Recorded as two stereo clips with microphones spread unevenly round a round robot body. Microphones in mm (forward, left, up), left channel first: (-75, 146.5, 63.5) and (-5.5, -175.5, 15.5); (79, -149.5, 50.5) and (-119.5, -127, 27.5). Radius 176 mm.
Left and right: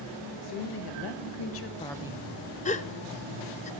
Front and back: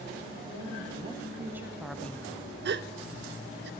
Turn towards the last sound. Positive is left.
turn(degrees=175)